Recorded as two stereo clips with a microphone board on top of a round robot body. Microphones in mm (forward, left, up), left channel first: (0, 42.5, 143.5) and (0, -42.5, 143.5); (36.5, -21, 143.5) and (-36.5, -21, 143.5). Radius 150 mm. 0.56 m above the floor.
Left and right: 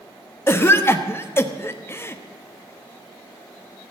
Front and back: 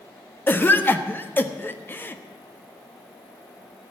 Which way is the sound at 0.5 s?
45° left.